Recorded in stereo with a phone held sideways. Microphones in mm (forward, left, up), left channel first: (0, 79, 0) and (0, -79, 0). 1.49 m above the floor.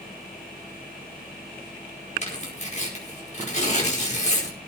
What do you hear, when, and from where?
2.2 s tearing paper: 45° left (ahead or behind), 5 m